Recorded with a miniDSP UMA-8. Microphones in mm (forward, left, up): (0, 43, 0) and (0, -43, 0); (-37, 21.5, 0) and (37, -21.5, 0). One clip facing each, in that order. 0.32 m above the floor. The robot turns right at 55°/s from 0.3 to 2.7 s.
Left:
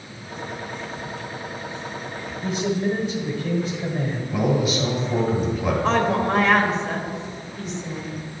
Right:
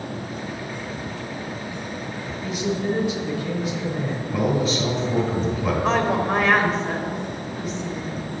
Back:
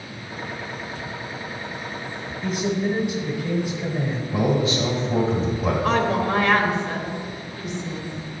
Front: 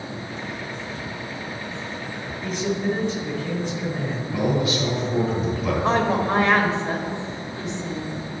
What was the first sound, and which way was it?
A man speaking, 60° left.